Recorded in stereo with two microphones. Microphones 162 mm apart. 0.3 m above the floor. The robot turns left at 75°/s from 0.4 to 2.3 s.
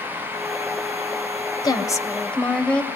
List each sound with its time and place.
1.6 s a woman speaking: 25° left (ahead or behind), 1.5 m; by 2.9 s 5° left (ahead or behind), 1.5 m